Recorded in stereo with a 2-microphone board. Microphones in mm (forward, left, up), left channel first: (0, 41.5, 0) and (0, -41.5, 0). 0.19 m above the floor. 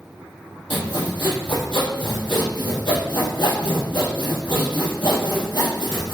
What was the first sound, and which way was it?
Sawing, 70° left (ahead or behind).